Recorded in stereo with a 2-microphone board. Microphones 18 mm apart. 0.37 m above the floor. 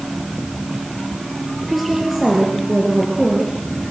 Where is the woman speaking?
5° right (ahead or behind), 6.5 m.